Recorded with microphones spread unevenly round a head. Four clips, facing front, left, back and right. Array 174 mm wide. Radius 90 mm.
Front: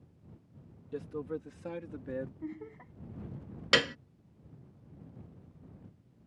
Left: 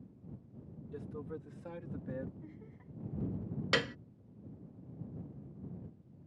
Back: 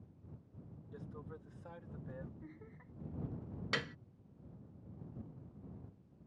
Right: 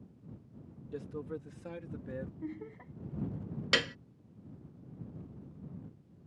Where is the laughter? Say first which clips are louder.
Right 10 dB, front 12 dB; 50° right.